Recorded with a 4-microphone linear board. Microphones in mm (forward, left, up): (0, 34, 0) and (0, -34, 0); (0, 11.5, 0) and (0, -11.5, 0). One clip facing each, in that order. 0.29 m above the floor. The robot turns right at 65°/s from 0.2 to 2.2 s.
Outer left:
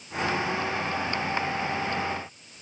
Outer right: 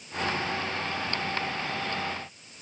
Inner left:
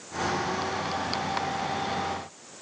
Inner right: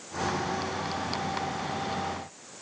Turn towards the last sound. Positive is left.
No sound to turn to.